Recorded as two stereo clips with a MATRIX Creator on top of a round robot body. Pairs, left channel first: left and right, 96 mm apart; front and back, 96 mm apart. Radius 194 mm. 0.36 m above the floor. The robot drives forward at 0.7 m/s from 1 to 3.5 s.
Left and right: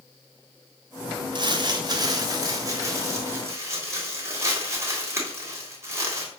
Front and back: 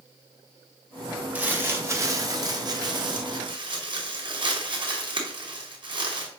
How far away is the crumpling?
About 1.5 m.